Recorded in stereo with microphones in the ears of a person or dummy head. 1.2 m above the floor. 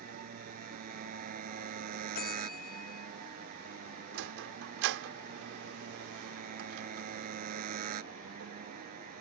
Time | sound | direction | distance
0.0 | a motorcycle | 45° right (ahead or behind) | ?
2.1 | a bell | 50° left (ahead or behind) | ?
4.1 | a sliding door | 65° right (ahead or behind) | ?